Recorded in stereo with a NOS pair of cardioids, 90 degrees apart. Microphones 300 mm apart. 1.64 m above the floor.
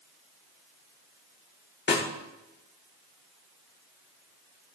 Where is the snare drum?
35° left, 1.9 m.